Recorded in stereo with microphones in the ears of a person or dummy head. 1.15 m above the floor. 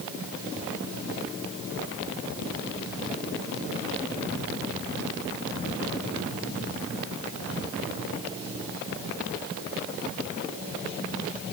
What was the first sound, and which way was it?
Only background noise.